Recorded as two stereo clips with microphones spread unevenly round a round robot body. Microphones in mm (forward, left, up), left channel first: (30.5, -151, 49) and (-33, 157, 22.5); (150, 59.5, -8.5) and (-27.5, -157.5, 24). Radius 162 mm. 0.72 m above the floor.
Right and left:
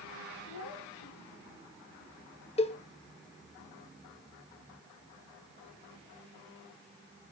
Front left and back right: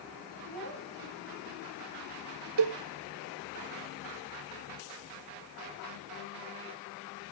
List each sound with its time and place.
0.5 s a child speaking: 130° right, 7 m
2.6 s a cowbell: 150° right, 0.8 m